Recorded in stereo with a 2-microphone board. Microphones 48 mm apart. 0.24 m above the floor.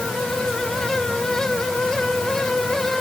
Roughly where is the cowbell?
I don't hear a cowbell.